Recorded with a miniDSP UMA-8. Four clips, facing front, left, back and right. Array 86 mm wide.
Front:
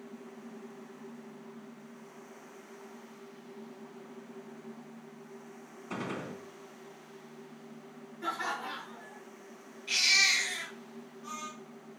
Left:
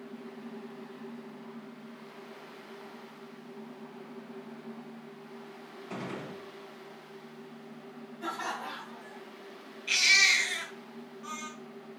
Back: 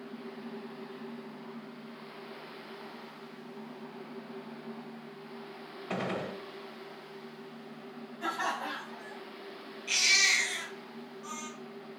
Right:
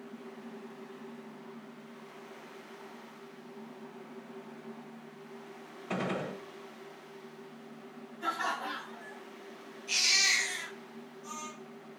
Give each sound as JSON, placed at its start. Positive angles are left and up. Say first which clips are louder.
{"t": 5.9, "sound": "a gunshot", "louder": "right 5 dB, back 3 dB", "azimuth_deg": -140, "distance_m": 1.4}
{"t": 8.2, "sound": "laughter", "louder": "right 2 dB, back 2 dB", "azimuth_deg": 175, "distance_m": 3.5}
{"t": 9.9, "sound": "a baby crying", "louder": "left 6 dB, back 1 dB", "azimuth_deg": 105, "distance_m": 3.5}